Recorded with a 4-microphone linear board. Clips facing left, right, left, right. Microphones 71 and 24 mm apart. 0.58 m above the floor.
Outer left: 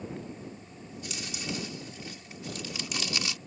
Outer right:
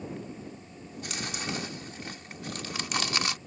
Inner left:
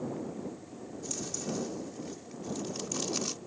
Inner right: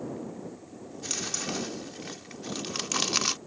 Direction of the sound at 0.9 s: 55° right (ahead or behind).